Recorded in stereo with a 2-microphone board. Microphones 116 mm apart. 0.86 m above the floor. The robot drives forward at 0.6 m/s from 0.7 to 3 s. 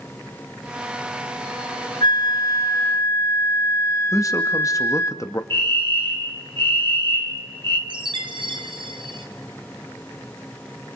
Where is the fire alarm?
50° right (ahead or behind), 2.5 m.